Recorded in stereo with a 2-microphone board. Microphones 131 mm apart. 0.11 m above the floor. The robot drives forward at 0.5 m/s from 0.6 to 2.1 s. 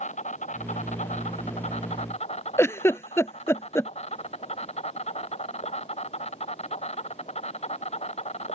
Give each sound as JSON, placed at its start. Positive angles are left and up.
{"t": 0.0, "sound": "an insect", "side_deg": 60}
{"t": 2.6, "sound": "a giggle", "side_deg": 20}